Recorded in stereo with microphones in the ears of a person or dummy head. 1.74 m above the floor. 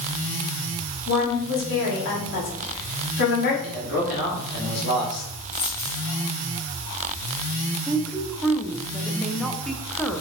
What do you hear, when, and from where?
1.1 s a woman speaking: 50° left (ahead or behind), 1.8 m
3.6 s a man speaking: 50° left (ahead or behind), 1.6 m
5.5 s a dropped coin: 45° left (ahead or behind), 1.7 m
7.9 s a woman speaking: centre (ahead or behind), 0.5 m